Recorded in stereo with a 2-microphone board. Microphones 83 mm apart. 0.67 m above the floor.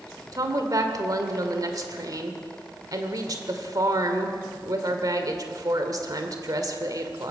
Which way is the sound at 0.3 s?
50° right (ahead or behind).